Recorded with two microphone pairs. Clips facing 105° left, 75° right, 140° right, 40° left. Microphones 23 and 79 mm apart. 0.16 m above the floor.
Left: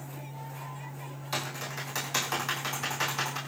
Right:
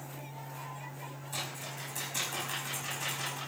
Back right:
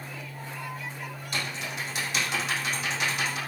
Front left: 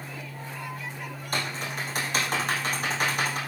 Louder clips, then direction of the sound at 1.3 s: Left 6 dB, front left 3 dB; 80° left.